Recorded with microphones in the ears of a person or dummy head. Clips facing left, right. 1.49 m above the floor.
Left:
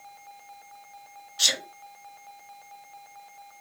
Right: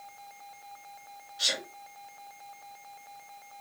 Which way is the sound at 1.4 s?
60° left (ahead or behind).